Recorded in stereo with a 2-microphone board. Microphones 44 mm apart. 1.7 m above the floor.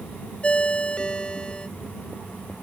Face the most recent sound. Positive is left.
turn(degrees=25)  # may be behind; listen again after turning